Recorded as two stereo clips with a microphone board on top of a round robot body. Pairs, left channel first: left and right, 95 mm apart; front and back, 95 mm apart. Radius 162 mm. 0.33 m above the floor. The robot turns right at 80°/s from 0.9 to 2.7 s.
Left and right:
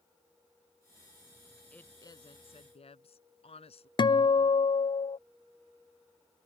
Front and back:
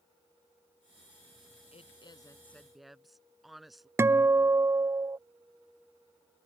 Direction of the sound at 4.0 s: 120° left.